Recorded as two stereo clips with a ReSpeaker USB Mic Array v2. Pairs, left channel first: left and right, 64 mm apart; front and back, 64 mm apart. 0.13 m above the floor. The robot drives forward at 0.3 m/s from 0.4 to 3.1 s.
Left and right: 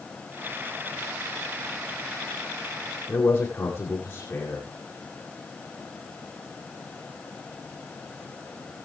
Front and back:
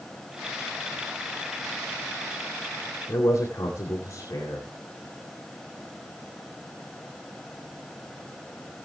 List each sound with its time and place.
3.1 s a man speaking: 45° left, 8 m